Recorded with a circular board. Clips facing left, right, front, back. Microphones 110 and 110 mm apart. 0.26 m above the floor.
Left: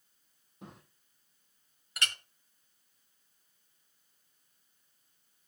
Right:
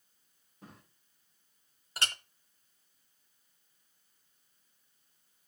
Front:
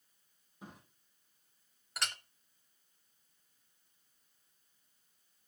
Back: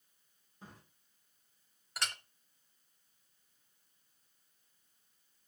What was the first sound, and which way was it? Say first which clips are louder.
A drawer: left 3 dB, front 3 dB; 75° left.